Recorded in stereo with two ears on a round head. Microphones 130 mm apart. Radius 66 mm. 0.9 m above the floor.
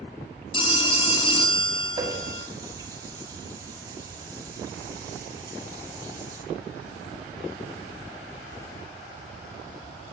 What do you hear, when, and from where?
0.5 s a phone ringing: 35° left (ahead or behind), 0.9 m
2.0 s a running tap: 25° right (ahead or behind), 1.3 m